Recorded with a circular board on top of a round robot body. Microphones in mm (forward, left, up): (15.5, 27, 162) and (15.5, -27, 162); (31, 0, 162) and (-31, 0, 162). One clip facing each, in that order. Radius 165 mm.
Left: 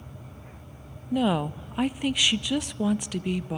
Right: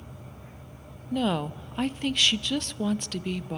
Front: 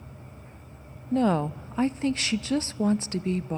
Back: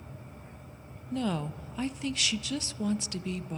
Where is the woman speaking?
15° left, 0.7 m.